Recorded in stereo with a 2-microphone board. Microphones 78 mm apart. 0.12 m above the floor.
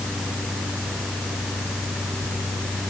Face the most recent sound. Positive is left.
No sound to turn to.